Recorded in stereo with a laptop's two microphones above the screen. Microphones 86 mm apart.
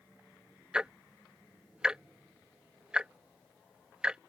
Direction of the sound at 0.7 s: 10° right (ahead or behind).